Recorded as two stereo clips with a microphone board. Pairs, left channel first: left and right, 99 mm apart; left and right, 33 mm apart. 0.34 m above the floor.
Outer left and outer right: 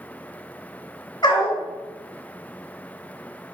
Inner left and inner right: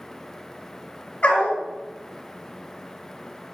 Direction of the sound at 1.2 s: 50° left (ahead or behind).